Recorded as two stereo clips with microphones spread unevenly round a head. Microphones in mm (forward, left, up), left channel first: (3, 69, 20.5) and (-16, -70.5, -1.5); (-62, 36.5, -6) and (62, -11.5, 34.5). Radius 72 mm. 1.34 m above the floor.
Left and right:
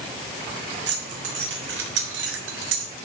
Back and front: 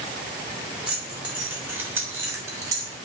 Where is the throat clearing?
I don't hear throat clearing.